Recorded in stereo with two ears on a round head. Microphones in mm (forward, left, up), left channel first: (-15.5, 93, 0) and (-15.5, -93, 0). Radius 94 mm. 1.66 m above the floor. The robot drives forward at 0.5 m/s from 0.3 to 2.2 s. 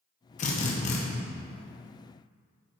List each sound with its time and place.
0.4 s a drill: 35° left (ahead or behind), 1.1 m